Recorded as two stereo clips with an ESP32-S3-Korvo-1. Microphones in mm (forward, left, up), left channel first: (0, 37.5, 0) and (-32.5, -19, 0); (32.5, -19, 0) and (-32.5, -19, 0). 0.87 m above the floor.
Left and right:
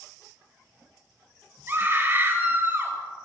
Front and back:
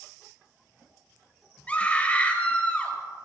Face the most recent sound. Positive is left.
turn(degrees=-65)